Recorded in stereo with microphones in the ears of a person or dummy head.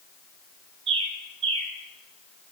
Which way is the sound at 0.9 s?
25° right (ahead or behind).